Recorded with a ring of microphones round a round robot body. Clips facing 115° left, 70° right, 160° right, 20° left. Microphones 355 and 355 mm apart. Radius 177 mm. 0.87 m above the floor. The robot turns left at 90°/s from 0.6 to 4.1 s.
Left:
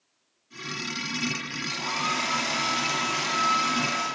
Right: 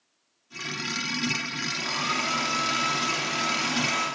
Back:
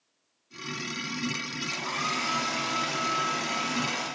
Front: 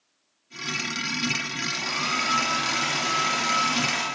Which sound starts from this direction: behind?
A hair dryer, at 1.7 s.